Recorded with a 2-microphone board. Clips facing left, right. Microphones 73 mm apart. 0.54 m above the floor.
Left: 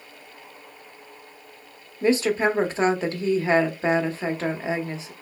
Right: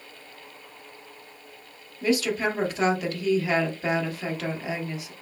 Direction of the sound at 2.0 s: 30° left (ahead or behind).